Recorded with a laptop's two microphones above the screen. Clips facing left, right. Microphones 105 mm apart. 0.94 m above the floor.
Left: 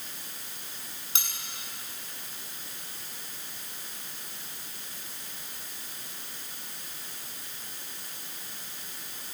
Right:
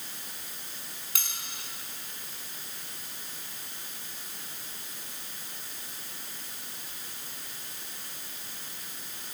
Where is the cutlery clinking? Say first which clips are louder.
Left 2 dB; 25° left (ahead or behind), 6.5 m.